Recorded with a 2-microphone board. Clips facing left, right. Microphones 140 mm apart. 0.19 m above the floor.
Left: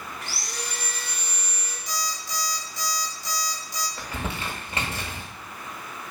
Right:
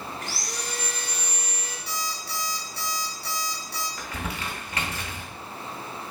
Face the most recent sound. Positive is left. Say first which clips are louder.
# left 1 dB
turn(degrees=30)  # may be behind; listen again after turning